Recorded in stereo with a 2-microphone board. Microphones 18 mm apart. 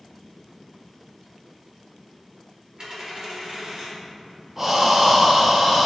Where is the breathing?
20° right (ahead or behind), 0.9 m.